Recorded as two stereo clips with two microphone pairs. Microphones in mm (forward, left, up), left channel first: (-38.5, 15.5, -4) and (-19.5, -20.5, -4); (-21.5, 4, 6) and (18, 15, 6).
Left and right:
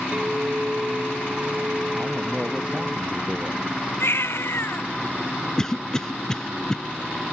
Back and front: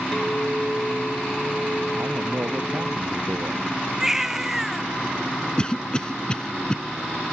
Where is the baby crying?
95° left.